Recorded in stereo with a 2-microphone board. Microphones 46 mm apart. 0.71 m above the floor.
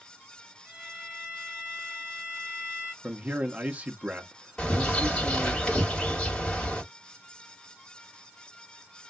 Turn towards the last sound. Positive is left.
turn(degrees=20)  # may be behind; listen again after turning